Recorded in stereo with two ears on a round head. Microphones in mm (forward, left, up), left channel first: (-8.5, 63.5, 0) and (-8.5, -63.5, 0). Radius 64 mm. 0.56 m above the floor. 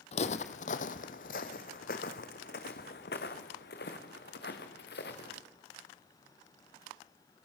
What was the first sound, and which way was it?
Footsteps, 50° left (ahead or behind).